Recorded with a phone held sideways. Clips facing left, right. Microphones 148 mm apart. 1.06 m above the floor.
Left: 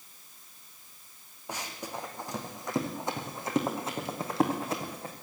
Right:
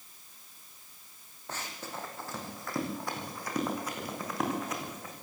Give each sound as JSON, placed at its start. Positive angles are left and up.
{"t": 1.5, "sound": "running footsteps", "side_deg": 10, "distance_m": 4.5}